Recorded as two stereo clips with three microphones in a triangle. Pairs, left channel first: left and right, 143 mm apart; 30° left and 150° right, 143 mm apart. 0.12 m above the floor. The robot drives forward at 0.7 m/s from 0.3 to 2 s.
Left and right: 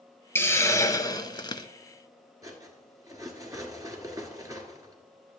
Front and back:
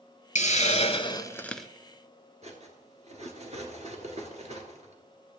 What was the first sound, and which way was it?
A hiss, 20° left.